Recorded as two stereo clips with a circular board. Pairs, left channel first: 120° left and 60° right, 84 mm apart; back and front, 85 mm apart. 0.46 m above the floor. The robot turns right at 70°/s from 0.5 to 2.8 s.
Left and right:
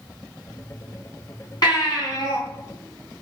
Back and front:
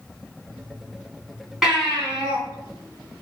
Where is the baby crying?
85° left, 3 m; by 2.4 s 140° left, 3 m.